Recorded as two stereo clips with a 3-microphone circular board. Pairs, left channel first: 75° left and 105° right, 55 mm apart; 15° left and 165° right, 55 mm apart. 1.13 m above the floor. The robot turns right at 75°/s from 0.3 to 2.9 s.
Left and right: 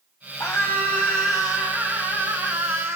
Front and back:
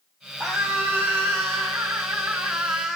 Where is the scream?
120° left, 6 m; by 3.0 s 55° right, 6 m.